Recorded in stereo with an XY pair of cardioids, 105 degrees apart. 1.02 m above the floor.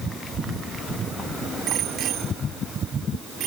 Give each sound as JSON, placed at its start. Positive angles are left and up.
{"t": 1.7, "sound": "a bicycle bell", "azimuth_deg": -70}